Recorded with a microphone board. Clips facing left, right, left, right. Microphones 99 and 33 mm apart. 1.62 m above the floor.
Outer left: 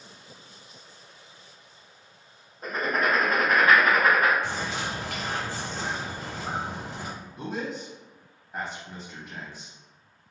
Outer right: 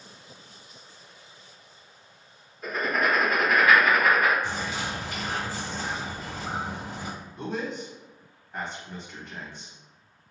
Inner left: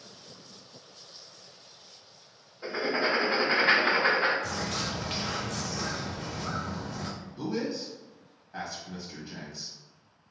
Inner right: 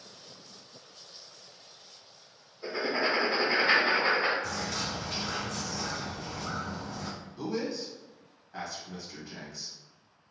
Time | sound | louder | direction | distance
2.6 | writing | even, inner left 1 dB | 35° left (ahead or behind) | 1.7 m
4.4 | a bird | even, inner left 1 dB | 80° left | 1.5 m
7.4 | a man speaking | outer right 1 dB, inner left 1 dB | 15° left (ahead or behind) | 1.4 m